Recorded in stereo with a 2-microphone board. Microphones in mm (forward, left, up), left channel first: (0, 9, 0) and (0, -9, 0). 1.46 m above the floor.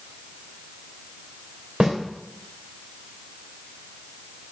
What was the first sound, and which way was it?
A snare drum, 35° right (ahead or behind).